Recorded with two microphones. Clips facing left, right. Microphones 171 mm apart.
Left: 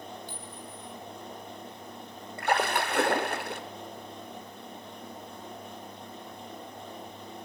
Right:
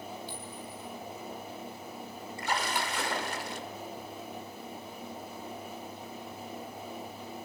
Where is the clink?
50° left (ahead or behind), 3.5 m.